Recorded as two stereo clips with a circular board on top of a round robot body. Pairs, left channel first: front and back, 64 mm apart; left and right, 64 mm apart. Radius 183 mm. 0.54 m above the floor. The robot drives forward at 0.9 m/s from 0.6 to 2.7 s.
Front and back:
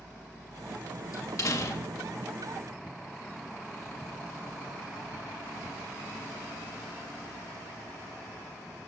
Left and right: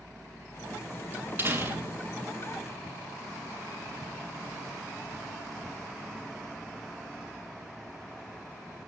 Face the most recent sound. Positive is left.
turn(degrees=-55)